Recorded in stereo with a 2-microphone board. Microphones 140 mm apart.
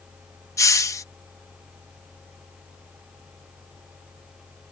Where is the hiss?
20° left (ahead or behind).